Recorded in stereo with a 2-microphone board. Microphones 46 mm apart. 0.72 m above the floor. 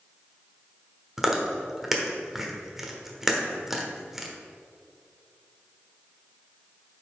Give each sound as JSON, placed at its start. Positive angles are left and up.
{"t": 1.2, "sound": "chewing", "side_deg": -5, "distance_m": 1.1}